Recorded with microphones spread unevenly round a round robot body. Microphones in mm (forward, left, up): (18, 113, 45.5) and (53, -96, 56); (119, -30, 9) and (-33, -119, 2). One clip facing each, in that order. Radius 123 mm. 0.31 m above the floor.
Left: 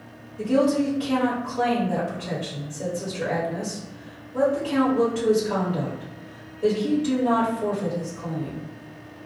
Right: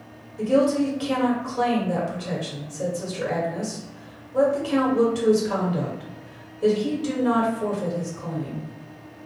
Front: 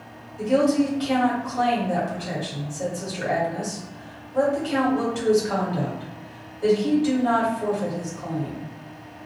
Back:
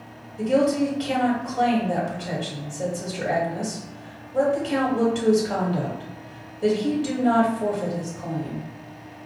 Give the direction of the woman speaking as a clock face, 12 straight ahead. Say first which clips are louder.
Right 1 dB, front 1 dB; 3 o'clock.